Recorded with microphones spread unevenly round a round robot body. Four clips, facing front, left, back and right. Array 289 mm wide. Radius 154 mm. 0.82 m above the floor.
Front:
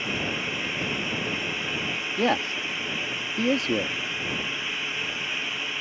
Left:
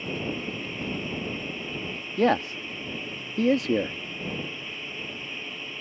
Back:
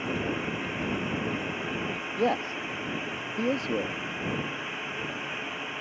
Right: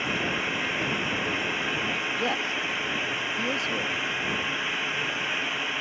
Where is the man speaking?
50° left.